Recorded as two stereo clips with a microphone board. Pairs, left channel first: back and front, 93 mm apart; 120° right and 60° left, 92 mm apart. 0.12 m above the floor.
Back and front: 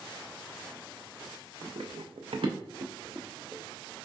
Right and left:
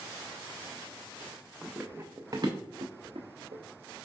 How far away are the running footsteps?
About 0.7 m.